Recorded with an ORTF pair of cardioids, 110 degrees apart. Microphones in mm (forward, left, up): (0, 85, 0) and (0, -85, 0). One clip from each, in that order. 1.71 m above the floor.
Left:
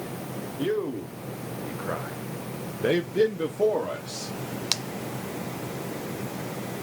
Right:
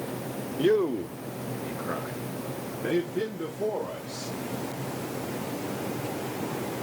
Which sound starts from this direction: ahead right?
A man speaking, at 0.6 s.